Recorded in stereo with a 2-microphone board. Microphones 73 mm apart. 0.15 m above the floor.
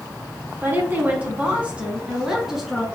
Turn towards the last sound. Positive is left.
turn(degrees=0)  # may be behind; listen again after turning